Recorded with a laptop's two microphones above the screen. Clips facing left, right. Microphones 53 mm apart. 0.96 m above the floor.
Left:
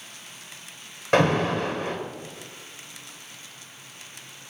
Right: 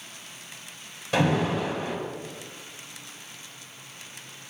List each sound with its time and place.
1.1 s an alarm: 55° left (ahead or behind), 3 m